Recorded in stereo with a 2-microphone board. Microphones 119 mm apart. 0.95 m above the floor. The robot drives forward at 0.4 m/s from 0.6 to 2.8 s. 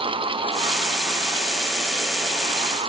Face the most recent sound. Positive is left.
No sound to turn to.